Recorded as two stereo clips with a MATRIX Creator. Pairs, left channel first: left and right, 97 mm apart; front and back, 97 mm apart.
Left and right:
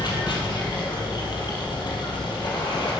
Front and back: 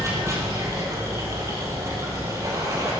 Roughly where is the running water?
Behind left.